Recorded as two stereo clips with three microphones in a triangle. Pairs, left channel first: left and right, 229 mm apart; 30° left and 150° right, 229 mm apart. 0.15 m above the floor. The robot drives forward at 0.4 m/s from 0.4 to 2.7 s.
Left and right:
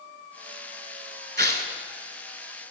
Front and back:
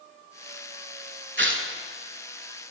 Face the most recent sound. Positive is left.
turn(degrees=-150)